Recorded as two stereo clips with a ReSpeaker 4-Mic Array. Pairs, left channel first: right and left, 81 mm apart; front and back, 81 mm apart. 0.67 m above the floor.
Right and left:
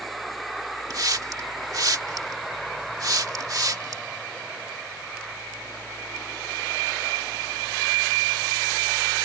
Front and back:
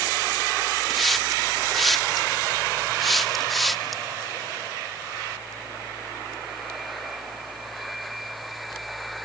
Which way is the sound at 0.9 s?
90° left.